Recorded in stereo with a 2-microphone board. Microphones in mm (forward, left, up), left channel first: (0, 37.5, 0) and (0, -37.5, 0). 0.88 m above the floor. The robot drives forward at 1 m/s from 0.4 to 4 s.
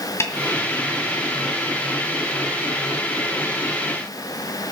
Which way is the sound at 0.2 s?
35° left (ahead or behind).